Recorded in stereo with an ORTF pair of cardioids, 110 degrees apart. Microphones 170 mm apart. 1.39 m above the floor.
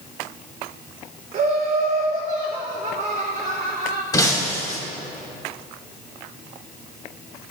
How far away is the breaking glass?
About 2 m.